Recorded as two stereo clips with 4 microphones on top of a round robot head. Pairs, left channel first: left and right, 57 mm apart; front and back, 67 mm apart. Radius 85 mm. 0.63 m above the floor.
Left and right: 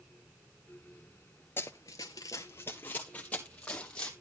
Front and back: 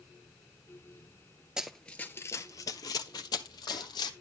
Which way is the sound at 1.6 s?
110° left.